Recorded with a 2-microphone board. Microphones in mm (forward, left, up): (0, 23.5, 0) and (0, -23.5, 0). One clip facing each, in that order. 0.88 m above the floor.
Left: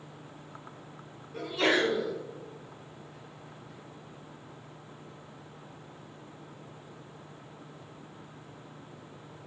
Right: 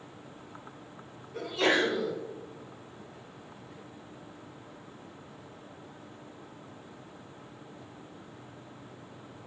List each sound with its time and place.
1.3 s a sneeze: 5° left (ahead or behind), 2 m